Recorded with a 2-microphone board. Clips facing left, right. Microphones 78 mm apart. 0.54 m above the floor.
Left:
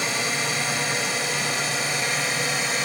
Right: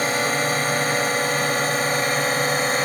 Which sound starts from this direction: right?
A drone, at 0.0 s.